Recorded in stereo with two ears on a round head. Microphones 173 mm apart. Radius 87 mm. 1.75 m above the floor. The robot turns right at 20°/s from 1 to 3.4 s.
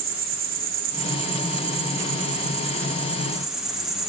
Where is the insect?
50° right, 1.4 m; by 4.1 s straight ahead, 1.4 m.